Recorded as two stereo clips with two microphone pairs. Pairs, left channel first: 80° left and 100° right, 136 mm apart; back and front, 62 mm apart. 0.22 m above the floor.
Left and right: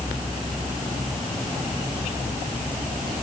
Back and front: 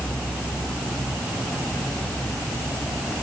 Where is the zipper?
I don't hear a zipper.